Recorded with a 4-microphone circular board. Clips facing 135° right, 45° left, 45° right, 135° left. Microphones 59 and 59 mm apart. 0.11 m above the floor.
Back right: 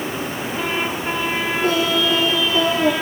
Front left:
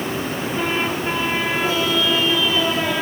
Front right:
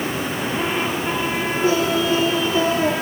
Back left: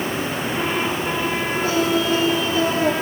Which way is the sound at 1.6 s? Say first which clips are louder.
Back right 4 dB, front right 2 dB; 110° right.